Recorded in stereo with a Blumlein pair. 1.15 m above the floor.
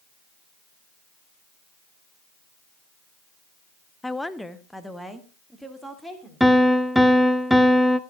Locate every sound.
4.0 s a woman speaking: 5° left, 0.6 m; by 6.5 s straight ahead, 3 m
6.4 s a piano: straight ahead, 0.8 m